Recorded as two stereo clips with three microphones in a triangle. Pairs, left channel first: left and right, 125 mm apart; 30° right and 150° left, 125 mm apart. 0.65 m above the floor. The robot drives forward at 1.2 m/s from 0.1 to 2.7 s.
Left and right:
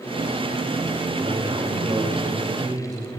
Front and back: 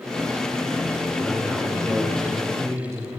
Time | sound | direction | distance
1.2 | a man speaking | 115° right | 2 m